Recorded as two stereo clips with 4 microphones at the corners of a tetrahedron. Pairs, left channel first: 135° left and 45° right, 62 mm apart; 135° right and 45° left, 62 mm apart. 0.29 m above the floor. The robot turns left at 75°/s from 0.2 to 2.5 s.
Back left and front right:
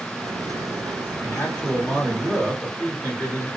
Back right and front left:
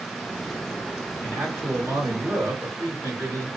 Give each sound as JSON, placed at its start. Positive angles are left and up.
{"t": 1.2, "sound": "a man speaking", "azimuth_deg": 100, "distance_m": 1.4}